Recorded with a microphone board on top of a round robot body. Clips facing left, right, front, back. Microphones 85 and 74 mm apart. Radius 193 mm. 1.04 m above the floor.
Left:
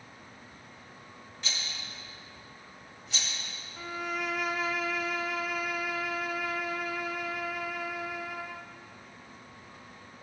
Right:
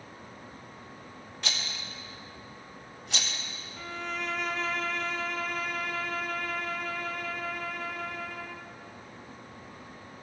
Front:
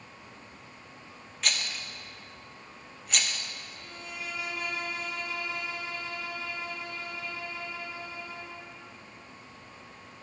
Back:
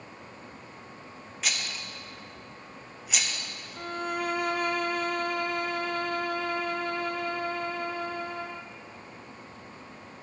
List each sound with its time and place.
1.4 s a rattle: 95° right, 0.7 m
3.8 s a violin: 170° left, 0.5 m